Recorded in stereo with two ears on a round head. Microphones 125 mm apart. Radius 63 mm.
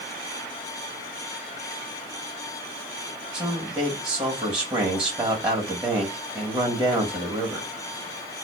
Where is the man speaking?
5° right (ahead or behind), 1.6 m.